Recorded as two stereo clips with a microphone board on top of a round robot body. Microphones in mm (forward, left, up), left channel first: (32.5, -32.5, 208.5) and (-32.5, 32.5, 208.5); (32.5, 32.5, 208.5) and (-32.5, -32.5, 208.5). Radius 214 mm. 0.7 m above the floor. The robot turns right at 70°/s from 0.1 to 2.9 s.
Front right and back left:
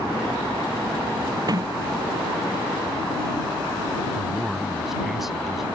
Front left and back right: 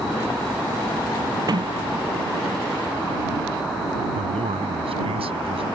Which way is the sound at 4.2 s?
140° right.